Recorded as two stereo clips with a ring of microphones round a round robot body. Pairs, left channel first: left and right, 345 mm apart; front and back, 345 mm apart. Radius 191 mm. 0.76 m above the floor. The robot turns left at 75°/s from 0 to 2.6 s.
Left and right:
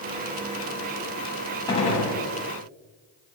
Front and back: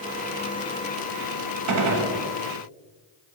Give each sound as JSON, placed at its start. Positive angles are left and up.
{"t": 1.7, "sound": "a gunshot", "azimuth_deg": 165, "distance_m": 0.7}